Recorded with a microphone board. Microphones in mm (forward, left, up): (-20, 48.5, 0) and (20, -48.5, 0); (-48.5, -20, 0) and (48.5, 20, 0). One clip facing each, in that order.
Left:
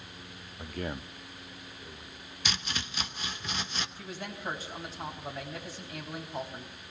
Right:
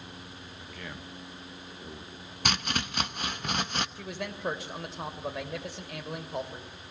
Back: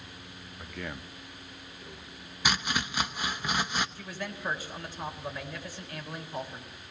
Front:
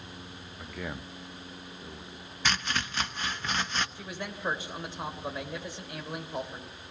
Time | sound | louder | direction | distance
0.6 | a man speaking | left 8 dB, front 1 dB | 110° left | 0.9 m
2.5 | chopping | right 6 dB, back 1 dB | 80° right | 0.8 m
4.0 | a man speaking | right 3 dB, even | 45° right | 3.5 m